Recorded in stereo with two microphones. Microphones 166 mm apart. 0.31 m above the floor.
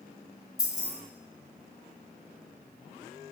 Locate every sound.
0.6 s keys jangling: 20° left (ahead or behind), 0.6 m